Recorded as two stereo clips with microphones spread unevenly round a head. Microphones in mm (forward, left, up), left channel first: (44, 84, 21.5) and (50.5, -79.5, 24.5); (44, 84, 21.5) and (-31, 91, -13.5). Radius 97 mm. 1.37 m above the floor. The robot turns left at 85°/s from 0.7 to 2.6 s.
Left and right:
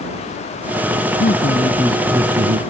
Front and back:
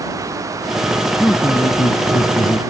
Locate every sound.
1.2 s a man speaking: 65° left; by 2.6 s 55° right